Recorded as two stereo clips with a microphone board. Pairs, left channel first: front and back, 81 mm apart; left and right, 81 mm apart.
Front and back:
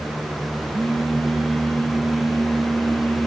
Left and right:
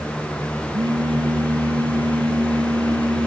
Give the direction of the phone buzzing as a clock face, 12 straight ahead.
3 o'clock.